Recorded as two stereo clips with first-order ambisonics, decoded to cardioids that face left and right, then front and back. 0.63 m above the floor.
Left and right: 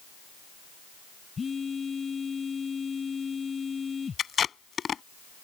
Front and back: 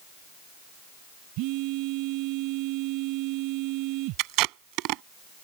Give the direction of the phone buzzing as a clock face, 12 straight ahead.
7 o'clock.